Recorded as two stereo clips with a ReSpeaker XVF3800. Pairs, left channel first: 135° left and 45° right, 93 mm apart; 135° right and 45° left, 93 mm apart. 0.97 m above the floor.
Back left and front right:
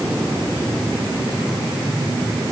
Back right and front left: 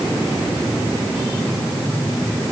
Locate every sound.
Only background noise.